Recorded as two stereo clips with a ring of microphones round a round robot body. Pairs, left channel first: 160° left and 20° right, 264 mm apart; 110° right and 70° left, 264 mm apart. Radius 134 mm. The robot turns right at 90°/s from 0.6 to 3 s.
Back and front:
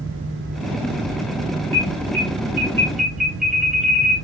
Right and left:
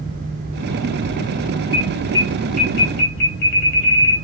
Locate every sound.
1.7 s an alarm: 140° left, 2.5 m; by 4.2 s 110° right, 2.5 m